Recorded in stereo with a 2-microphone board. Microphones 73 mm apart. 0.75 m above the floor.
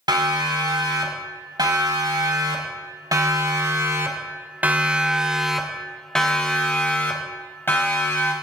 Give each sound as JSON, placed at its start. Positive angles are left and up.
{"t": 0.1, "sound": "a siren", "side_deg": -80, "distance_m": 6.0}